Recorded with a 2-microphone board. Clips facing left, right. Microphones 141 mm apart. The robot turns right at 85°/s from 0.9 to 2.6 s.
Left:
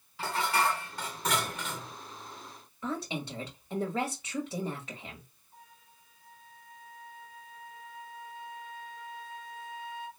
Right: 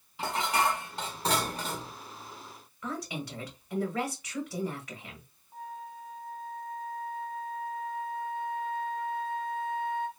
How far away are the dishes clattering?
About 0.6 m.